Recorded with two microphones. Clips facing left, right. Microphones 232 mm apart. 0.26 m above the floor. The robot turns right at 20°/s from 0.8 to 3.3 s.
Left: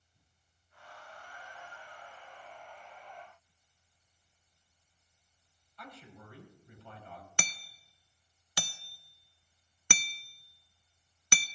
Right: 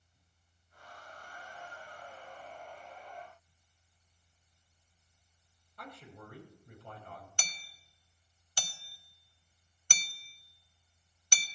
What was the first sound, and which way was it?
A man speaking, 50° right (ahead or behind).